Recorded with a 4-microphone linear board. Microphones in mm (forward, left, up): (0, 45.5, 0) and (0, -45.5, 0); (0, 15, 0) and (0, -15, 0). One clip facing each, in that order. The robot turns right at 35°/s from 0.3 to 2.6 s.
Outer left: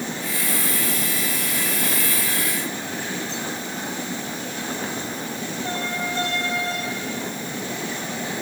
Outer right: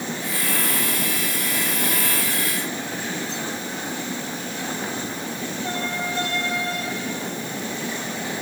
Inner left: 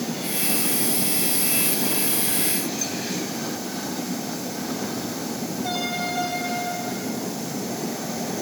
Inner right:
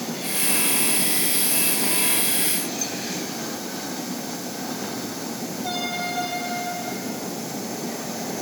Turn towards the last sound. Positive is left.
No sound to turn to.